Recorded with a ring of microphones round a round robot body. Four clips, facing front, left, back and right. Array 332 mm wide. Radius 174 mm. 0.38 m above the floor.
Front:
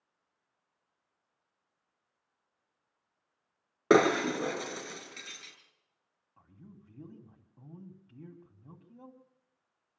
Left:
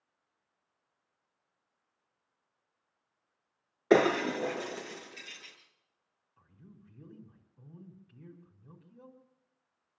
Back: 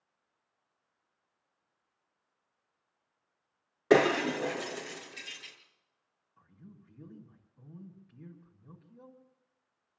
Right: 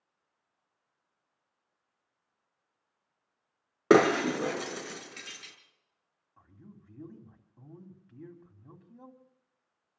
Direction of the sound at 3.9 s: 65° right.